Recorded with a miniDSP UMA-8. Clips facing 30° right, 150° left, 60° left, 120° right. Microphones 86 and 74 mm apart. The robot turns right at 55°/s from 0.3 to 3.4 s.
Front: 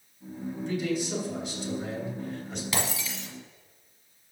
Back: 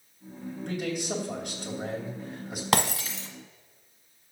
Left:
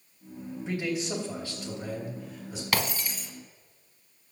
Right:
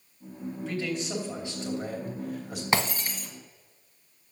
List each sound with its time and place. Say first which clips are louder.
0.7 s a man speaking: front 2 dB, left 1 dB; 125° left, 3 m; by 2.6 s 125° right, 3 m
2.7 s breaking glass: back 8 dB, right 3 dB; 175° left, 1.4 m; by 3.3 s 155° right, 1.4 m